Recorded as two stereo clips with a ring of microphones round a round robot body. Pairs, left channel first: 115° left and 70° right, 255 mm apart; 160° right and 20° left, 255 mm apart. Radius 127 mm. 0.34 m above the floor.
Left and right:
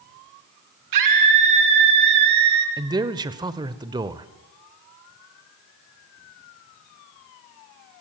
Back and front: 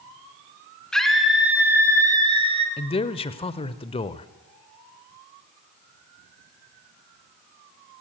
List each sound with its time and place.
0.9 s a scream: 70° right, 3.5 m; by 2.7 s 45° right, 3 m
2.8 s a man speaking: 120° right, 0.9 m